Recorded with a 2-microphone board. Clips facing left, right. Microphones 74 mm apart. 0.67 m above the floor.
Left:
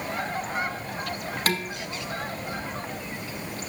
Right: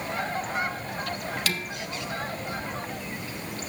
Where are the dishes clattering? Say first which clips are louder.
Left 9 dB; 40° left (ahead or behind), 0.9 m.